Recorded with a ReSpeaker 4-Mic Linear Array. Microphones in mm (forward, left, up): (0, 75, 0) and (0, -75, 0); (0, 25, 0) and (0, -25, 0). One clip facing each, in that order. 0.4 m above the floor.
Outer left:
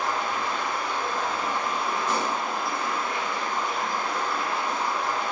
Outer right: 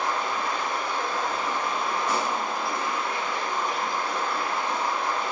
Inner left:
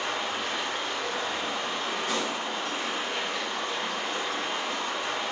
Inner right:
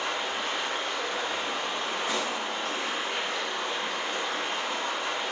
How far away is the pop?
About 0.8 m.